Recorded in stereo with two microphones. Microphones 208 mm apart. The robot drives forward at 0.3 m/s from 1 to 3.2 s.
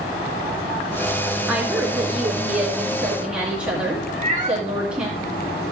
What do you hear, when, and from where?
1.5 s a woman speaking: 5° right (ahead or behind), 1.8 m
4.1 s a cat meowing: 35° right (ahead or behind), 1.9 m